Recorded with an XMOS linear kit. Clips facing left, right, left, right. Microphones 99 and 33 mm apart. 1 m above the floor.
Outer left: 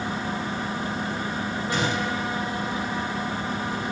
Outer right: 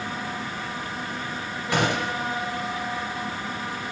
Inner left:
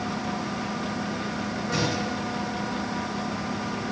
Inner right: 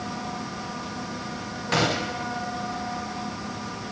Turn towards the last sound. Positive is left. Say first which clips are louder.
# outer right 3 dB, inner right 5 dB
turn(degrees=-65)  # may be behind; listen again after turning